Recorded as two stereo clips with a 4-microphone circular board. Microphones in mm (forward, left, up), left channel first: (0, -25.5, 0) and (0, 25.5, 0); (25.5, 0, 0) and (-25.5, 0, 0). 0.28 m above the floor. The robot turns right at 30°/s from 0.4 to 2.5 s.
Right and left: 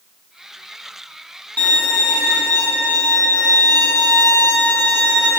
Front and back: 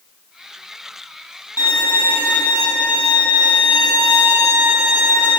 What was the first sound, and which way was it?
A violin, 145° right.